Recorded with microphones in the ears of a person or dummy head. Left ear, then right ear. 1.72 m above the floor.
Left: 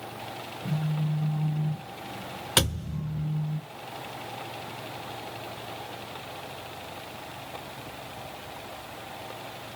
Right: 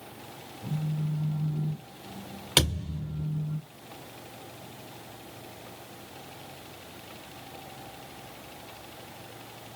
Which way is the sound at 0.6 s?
55° left (ahead or behind).